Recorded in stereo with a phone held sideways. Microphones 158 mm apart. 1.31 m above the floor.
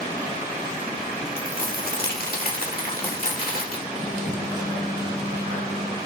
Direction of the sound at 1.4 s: 65° left (ahead or behind).